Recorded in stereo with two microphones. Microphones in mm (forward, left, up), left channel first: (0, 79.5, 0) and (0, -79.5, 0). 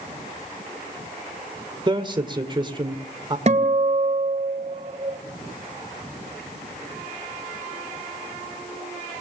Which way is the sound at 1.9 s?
30° right (ahead or behind).